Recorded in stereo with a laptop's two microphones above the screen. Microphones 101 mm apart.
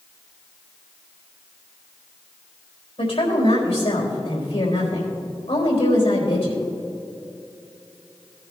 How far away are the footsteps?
I don't hear footsteps.